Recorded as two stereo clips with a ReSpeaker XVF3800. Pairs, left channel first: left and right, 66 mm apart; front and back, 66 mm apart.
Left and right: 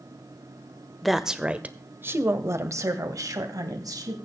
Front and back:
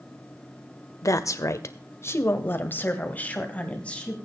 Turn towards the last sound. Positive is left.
turn(degrees=-70)